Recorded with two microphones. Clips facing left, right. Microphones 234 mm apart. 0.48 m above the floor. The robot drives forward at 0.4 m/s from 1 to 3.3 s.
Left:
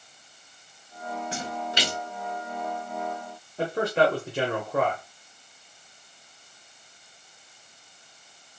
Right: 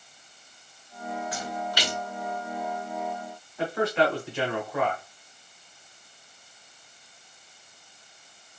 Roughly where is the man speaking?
Left.